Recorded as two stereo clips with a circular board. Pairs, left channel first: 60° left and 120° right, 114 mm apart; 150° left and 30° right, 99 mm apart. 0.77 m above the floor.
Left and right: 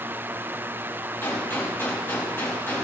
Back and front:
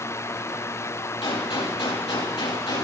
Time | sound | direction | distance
1.2 | a gunshot | 130° left | 4 m